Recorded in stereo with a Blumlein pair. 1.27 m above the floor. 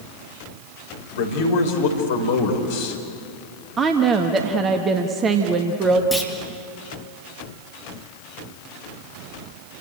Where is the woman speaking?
20° right, 1.6 m.